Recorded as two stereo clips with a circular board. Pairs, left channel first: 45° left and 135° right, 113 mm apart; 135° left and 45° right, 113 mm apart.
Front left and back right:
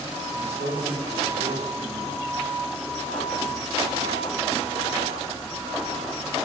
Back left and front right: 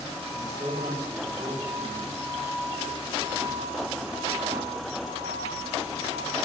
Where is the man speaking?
105° right, 4 m.